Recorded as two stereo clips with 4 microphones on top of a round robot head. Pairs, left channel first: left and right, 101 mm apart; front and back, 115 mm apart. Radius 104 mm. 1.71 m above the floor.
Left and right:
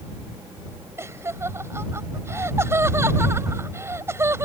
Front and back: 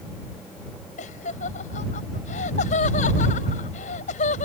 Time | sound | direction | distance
1.0 | laughter | 25° right | ?